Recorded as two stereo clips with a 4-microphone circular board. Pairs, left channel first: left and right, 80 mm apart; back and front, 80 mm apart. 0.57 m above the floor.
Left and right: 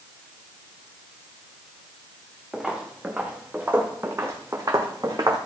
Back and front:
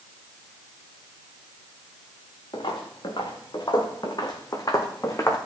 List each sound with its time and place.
2.5 s footsteps: 170° right, 2.5 m; by 5.4 s 125° right, 1.9 m